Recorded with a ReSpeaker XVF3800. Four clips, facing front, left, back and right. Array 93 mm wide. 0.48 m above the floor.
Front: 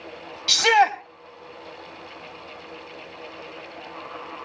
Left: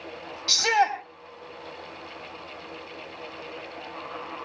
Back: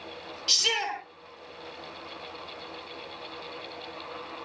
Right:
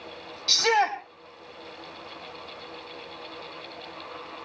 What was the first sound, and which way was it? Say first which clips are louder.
A shout: left 1 dB, front 14 dB; 5° left.